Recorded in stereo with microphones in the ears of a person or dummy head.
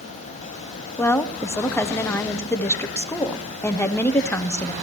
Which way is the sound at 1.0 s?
15° left (ahead or behind).